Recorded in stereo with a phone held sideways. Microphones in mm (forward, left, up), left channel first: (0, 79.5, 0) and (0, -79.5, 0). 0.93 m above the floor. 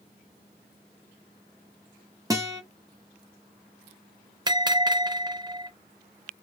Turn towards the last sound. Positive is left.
turn(degrees=-25)  # may be behind; listen again after turning